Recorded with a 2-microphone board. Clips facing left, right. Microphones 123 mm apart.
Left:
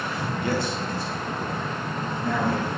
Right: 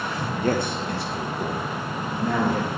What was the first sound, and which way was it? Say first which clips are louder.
A man speaking: right 4 dB; 40° right (ahead or behind).